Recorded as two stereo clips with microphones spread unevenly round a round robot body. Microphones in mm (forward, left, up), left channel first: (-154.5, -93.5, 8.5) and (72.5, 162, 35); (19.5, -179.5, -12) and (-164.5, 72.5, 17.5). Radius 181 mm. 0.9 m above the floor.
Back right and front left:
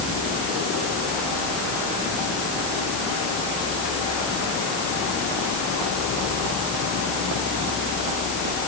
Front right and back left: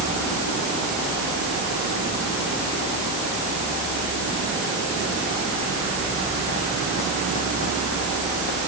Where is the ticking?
I don't hear ticking.